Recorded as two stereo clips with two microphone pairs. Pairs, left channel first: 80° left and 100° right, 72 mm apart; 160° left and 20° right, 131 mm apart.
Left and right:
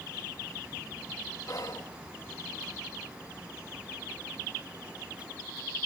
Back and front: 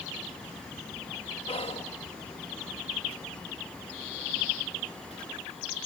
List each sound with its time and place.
1.5 s whispering: 120° left, 1.8 m